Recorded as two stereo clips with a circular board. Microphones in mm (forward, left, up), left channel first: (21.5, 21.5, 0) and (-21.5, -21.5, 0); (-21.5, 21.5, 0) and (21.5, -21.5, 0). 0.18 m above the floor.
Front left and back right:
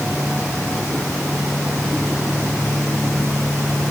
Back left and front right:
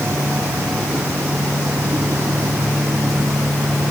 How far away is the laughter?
I don't hear laughter.